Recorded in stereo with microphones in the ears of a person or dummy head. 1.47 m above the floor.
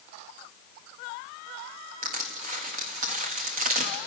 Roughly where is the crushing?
Right.